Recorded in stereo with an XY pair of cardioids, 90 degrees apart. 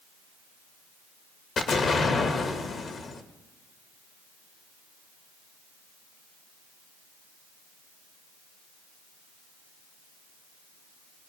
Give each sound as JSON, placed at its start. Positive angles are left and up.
{"t": 1.6, "sound": "an explosion", "azimuth_deg": 60, "distance_m": 1.2}